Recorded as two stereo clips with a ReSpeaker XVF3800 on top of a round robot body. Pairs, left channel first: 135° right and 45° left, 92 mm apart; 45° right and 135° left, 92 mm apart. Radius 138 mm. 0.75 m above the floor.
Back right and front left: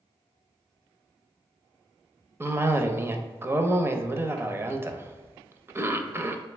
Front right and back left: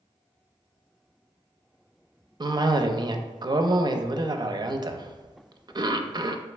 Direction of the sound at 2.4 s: 105° left.